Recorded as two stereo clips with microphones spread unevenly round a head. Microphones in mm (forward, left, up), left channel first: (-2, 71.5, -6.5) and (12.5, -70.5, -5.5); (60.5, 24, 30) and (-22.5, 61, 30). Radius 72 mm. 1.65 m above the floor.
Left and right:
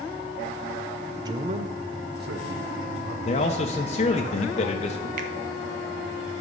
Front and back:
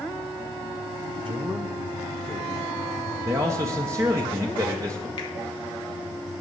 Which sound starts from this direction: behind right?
A man speaking, at 1.2 s.